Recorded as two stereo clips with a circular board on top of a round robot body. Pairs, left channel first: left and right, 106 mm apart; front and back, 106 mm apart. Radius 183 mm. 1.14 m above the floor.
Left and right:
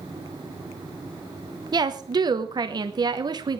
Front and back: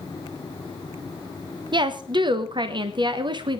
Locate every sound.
1.7 s a woman speaking: 140° right, 1.2 m